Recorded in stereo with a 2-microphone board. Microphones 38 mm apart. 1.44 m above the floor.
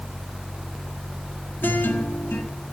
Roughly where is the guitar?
Left.